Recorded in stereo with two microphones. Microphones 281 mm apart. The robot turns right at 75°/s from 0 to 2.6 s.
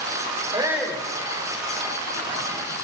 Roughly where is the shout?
Ahead.